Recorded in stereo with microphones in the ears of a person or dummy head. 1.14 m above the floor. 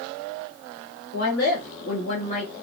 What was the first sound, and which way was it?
A woman speaking, 45° left (ahead or behind).